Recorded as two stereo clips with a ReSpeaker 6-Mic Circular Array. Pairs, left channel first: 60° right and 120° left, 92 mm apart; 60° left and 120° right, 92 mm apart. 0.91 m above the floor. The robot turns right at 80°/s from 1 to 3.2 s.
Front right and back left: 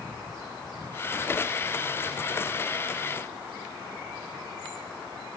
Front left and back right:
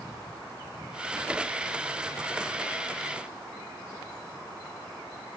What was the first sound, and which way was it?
Only background noise.